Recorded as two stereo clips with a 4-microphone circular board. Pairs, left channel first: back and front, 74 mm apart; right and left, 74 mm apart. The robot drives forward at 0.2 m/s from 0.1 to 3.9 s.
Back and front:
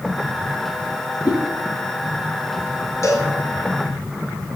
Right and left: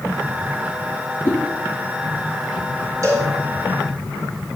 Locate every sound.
1.2 s a whoosh: 155° right, 6 m
3.0 s a cowbell: 130° left, 3 m; by 3.3 s 135° left, 3 m